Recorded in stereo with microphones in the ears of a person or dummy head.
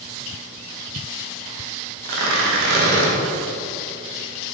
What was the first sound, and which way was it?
Tearing paper, 65° right (ahead or behind).